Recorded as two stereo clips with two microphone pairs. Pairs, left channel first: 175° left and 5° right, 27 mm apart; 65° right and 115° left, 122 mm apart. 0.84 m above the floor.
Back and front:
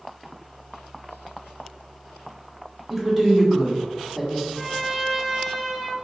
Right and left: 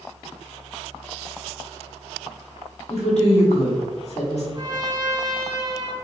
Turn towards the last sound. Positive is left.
turn(degrees=70)